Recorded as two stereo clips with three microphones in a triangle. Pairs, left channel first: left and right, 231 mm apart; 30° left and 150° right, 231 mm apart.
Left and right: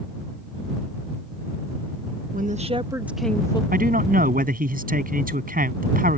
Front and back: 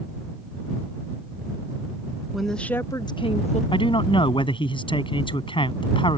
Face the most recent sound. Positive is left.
turn(degrees=-40)